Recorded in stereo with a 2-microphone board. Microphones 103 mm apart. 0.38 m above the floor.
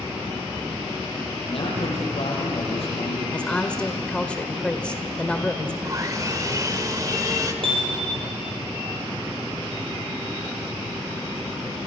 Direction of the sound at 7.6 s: 55° right (ahead or behind).